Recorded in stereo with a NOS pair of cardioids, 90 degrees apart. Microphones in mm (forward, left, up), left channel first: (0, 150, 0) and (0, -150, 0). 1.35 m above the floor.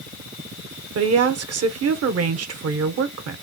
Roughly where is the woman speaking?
Ahead right.